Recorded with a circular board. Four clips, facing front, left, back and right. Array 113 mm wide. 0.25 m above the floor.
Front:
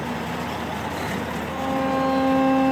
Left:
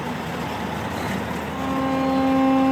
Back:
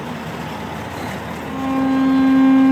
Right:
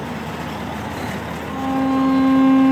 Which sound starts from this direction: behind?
A violin, at 1.4 s.